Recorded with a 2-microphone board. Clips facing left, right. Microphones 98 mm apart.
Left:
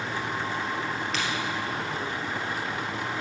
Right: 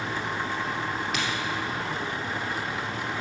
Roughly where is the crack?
Centre.